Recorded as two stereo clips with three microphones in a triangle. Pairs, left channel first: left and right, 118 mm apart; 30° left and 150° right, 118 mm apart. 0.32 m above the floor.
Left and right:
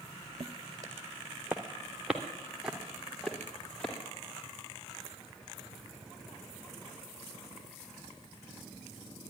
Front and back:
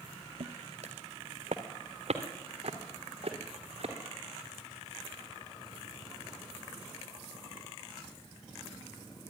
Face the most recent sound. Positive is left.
turn(degrees=170)